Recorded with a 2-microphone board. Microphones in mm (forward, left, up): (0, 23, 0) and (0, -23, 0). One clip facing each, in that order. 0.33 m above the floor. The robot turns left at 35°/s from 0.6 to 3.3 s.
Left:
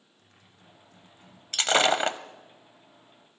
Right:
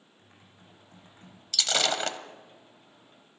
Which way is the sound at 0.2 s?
20° right (ahead or behind).